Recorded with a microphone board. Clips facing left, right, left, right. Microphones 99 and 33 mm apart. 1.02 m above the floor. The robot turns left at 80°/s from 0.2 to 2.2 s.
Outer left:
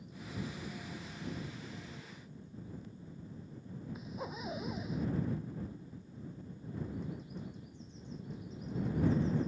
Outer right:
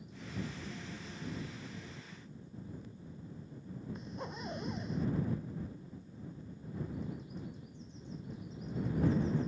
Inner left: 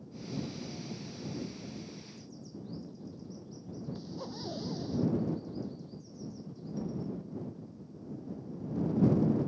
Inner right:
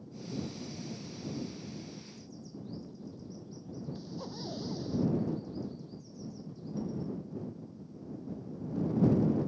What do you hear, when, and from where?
4.0 s a zipper: 5° left (ahead or behind)